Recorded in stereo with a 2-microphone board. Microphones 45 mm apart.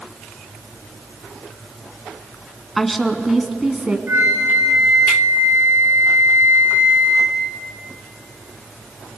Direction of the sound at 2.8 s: 5° left (ahead or behind).